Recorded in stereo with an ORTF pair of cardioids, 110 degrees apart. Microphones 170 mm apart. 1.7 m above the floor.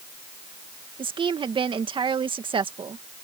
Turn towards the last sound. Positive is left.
turn(degrees=-30)